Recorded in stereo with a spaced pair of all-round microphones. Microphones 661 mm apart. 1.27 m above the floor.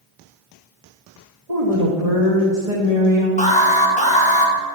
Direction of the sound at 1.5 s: 70° right (ahead or behind).